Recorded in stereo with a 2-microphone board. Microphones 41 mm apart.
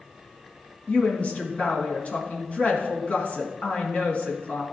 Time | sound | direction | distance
0.9 | a woman speaking | 35° left (ahead or behind) | 2 m